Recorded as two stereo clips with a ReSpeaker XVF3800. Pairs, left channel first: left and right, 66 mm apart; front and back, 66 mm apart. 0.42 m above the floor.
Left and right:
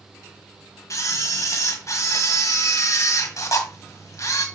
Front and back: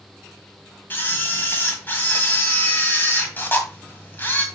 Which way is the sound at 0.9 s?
55° left.